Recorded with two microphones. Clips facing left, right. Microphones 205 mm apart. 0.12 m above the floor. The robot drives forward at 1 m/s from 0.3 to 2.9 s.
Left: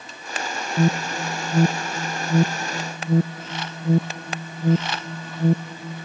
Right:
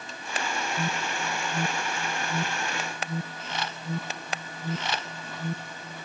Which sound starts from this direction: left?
An alarm, at 0.8 s.